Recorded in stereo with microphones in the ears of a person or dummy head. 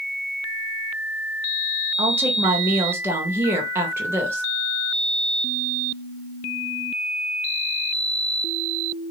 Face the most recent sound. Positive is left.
turn(degrees=-15)  # may be behind; listen again after turning